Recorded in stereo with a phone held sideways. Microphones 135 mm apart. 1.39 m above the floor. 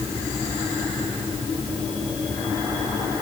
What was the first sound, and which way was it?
Only background noise.